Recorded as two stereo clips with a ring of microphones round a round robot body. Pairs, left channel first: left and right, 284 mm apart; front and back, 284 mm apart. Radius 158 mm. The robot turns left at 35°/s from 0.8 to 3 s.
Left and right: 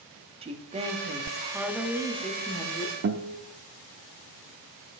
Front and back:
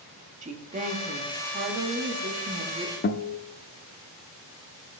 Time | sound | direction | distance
0.4 | a woman speaking | 140° right | 1.0 m
3.0 | a guitar | 50° right | 0.6 m